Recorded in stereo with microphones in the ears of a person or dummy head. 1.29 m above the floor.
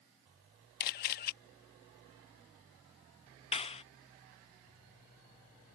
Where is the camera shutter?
55° left (ahead or behind).